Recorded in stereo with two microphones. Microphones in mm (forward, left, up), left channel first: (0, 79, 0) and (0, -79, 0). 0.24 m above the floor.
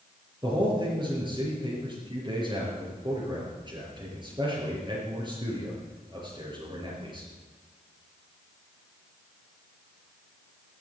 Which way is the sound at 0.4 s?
30° right (ahead or behind).